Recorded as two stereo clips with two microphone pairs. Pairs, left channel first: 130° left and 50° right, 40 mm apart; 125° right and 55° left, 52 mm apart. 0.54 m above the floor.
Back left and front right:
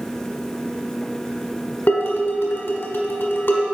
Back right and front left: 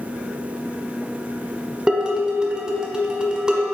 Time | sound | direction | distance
1.9 | dishes clattering | 130° left | 1.2 m